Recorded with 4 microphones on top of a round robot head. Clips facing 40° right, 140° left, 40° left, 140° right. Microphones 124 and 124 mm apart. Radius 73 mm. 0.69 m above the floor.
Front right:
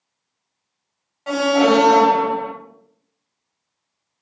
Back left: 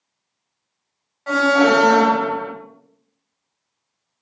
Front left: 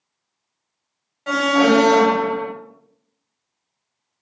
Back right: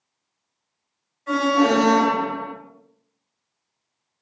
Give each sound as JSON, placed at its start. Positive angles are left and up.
{"t": 1.3, "sound": "an alarm", "azimuth_deg": 35, "distance_m": 2.5}